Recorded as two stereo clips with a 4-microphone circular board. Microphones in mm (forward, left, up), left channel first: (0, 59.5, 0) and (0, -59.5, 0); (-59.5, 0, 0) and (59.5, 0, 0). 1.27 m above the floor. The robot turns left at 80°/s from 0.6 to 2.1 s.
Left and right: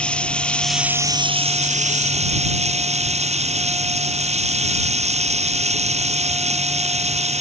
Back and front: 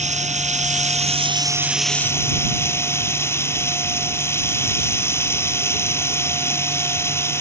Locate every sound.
0.0 s running water: 10° left; by 7.4 s 110° right